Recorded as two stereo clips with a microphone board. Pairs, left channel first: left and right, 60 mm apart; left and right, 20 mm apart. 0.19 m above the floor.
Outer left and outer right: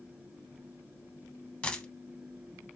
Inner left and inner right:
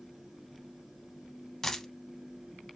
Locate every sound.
1.6 s a dropped coin: 20° left (ahead or behind), 0.6 m